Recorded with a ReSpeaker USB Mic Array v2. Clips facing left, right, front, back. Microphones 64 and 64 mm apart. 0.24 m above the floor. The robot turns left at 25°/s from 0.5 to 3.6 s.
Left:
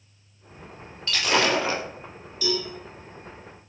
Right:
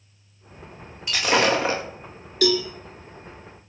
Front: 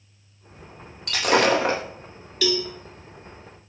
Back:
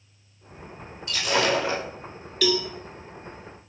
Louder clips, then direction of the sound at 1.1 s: Right 2 dB, front 4 dB; 15° right.